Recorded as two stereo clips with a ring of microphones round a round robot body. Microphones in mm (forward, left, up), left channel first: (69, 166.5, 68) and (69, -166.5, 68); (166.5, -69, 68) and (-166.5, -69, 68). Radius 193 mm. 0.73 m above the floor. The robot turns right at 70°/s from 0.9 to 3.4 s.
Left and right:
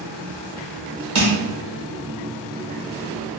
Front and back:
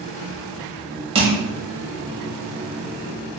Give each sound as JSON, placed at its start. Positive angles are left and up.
{"t": 1.1, "sound": "crushing", "azimuth_deg": -110, "distance_m": 1.3}